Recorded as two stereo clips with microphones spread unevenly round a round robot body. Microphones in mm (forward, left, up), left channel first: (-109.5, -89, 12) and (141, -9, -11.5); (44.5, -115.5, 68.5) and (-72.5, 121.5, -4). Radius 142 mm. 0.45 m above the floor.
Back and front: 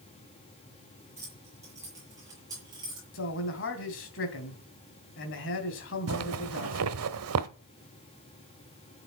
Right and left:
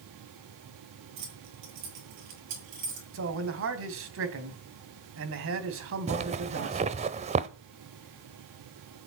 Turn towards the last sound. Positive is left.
turn(degrees=55)